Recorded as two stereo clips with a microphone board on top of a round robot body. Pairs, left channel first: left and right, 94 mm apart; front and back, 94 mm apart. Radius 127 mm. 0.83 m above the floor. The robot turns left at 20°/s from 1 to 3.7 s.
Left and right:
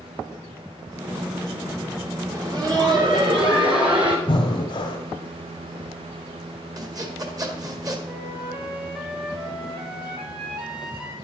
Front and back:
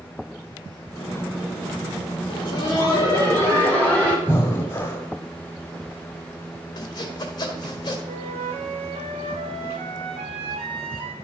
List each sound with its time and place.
2.3 s laughter: 40° right, 3.5 m; by 4.2 s 70° right, 3.5 m
4.3 s breathing: 60° left, 0.9 m
6.8 s sawing: 45° right, 1.8 m
8.1 s a flute: 175° right, 1.3 m